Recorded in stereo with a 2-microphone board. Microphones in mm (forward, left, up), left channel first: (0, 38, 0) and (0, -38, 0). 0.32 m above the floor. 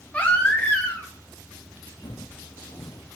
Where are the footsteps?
75° left (ahead or behind), 1.3 m; by 3.0 s 50° left (ahead or behind), 0.7 m.